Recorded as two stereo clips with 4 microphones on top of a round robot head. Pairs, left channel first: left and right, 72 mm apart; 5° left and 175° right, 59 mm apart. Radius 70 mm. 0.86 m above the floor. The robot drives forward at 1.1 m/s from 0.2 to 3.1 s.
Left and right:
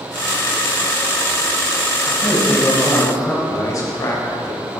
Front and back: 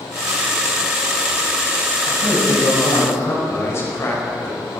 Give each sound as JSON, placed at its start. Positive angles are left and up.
{"t": 2.0, "sound": "a man speaking", "azimuth_deg": 20, "distance_m": 6.0}
{"t": 3.5, "sound": "a man speaking", "azimuth_deg": 50, "distance_m": 4.0}